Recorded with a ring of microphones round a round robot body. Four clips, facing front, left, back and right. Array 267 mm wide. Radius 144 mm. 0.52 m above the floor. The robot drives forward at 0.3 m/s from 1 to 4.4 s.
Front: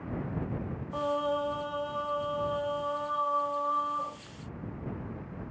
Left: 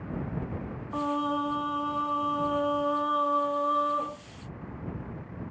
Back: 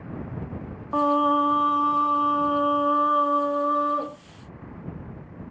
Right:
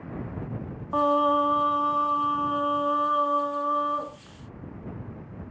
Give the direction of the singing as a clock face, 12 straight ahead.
5 o'clock.